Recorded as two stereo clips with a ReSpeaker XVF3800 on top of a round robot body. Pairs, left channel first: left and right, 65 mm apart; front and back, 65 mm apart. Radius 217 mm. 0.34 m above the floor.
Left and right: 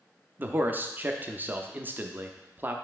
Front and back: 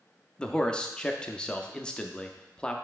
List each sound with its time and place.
0.4 s a man speaking: 65° right, 0.8 m